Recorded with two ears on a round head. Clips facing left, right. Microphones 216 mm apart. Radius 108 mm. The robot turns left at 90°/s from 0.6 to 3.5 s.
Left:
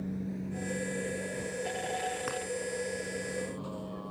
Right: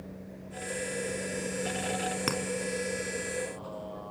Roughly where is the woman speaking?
I don't hear a woman speaking.